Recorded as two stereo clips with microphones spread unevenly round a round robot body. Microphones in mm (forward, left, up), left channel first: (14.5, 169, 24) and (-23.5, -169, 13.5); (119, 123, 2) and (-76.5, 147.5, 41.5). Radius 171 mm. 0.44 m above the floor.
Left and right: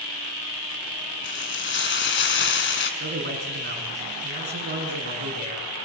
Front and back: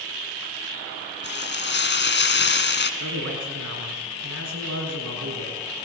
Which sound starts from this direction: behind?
A man speaking, at 3.0 s.